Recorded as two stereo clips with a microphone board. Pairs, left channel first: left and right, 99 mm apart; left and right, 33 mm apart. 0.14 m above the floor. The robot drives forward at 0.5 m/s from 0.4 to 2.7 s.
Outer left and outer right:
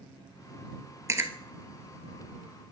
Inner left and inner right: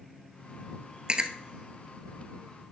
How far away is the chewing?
About 0.6 m.